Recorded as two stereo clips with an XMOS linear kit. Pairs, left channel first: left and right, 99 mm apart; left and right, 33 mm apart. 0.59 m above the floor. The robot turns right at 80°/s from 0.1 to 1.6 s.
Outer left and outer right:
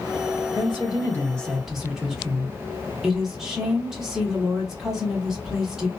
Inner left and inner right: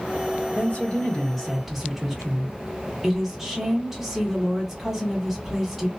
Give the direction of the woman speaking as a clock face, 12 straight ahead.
9 o'clock.